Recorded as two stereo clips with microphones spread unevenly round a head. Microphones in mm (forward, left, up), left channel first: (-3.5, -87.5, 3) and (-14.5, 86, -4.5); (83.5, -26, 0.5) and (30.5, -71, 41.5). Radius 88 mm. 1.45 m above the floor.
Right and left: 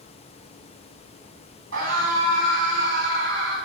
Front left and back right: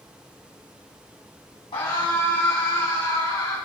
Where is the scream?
70° left, 9 m; by 3.5 s 65° left, 10.5 m.